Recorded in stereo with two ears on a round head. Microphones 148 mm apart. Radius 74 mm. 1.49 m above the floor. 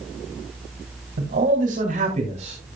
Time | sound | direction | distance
1.2 | a man speaking | 60° right (ahead or behind) | 3 m